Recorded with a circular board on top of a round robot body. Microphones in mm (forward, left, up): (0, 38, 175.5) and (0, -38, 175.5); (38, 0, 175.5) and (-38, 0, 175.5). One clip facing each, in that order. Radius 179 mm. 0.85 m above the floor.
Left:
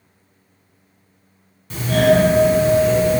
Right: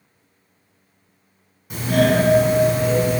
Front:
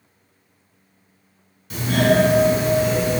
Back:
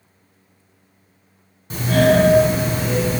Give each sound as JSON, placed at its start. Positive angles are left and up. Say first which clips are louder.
{"t": 1.7, "sound": "a doorbell", "louder": "left 3 dB, back 2 dB", "azimuth_deg": -165, "distance_m": 1.5}